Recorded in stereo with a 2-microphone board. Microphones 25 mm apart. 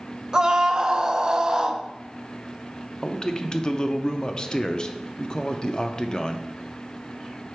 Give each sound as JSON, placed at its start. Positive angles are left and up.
{"t": 0.3, "sound": "a scream", "side_deg": -30, "distance_m": 0.6}
{"t": 3.0, "sound": "a man speaking", "side_deg": 35, "distance_m": 0.5}